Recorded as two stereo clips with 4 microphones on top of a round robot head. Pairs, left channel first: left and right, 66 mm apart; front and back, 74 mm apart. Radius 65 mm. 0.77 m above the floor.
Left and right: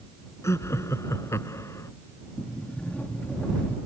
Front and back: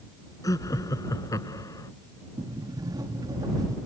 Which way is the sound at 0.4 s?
45° left.